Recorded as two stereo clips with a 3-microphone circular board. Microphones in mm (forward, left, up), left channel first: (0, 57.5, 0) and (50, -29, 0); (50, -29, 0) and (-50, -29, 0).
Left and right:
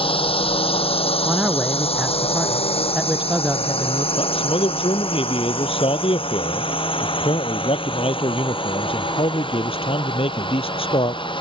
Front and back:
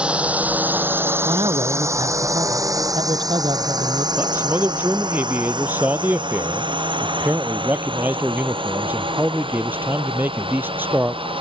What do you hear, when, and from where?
0.0 s a drone: 100° left; by 11.4 s 155° left
1.2 s a man speaking: 140° right
4.2 s a man speaking: 110° left